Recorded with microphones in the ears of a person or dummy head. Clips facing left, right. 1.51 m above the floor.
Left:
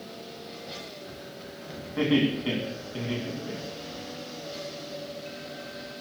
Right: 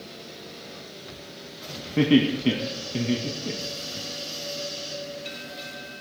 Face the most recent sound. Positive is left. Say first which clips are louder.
# right 4 dB
turn(degrees=-40)  # may be behind; listen again after turning